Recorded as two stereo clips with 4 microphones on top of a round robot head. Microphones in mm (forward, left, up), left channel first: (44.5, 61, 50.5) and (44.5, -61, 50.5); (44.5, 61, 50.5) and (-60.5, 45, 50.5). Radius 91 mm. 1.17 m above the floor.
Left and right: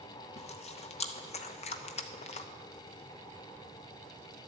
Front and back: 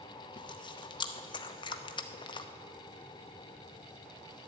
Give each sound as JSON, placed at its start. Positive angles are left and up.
{"t": 0.4, "sound": "chewing", "azimuth_deg": 55, "distance_m": 0.9}